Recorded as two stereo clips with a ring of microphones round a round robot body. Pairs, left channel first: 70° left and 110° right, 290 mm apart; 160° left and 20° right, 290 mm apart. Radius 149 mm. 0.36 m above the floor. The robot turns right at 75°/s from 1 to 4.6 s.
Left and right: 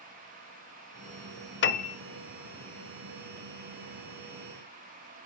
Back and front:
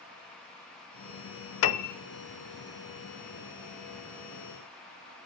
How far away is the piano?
About 0.8 m.